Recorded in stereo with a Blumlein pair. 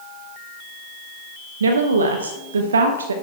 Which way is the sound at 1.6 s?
70° right.